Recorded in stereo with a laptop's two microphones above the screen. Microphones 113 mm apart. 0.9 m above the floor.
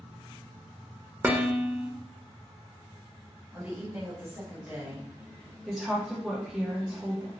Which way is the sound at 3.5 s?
15° right (ahead or behind).